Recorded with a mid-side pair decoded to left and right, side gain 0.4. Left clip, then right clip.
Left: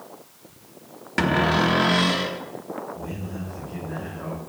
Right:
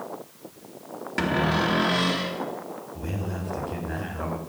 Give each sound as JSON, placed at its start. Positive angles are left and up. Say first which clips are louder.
{"t": 1.2, "sound": "a cupboard door", "louder": "left 4 dB", "azimuth_deg": 35, "distance_m": 1.5}
{"t": 3.0, "sound": "a man speaking", "louder": "right 1 dB", "azimuth_deg": -70, "distance_m": 3.5}